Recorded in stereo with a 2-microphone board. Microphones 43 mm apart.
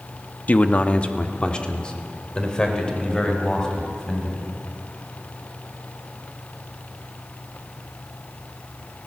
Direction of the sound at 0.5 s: 40° left (ahead or behind).